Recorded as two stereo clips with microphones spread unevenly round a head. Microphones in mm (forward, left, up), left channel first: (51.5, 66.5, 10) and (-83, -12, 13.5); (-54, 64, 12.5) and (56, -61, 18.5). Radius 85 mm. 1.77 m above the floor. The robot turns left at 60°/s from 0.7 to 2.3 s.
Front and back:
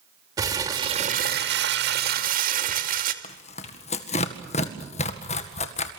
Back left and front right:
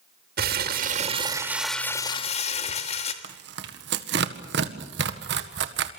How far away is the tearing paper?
About 1.8 m.